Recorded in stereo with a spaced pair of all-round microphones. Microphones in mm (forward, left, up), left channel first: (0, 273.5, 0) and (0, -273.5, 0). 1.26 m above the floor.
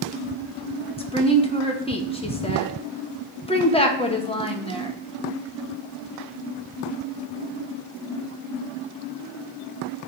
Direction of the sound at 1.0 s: 10° left (ahead or behind).